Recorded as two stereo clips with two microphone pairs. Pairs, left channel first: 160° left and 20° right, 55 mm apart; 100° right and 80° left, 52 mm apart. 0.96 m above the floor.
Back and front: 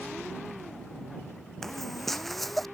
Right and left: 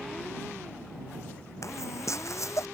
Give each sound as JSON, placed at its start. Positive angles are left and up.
{"t": 1.6, "sound": "footsteps", "azimuth_deg": -115}